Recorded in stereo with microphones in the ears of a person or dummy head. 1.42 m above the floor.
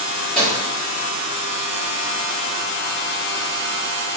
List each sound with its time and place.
0.3 s a microwave: 5° left (ahead or behind), 1.6 m